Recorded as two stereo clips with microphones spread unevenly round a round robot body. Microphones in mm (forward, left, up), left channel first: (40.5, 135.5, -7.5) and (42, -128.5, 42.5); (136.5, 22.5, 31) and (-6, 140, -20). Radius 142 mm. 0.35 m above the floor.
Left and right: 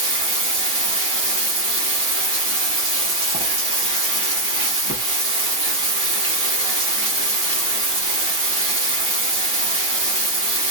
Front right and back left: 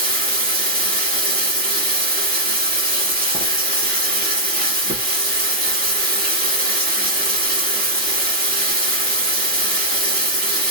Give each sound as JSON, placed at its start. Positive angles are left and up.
{"t": 0.0, "sound": "running water", "azimuth_deg": -160, "distance_m": 1.0}